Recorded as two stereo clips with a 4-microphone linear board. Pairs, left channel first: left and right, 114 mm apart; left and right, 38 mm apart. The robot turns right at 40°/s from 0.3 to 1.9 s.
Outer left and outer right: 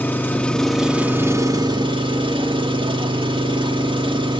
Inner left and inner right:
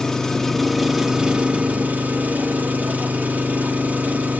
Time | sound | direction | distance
0.0 | an engine running | 165° left | 1.6 m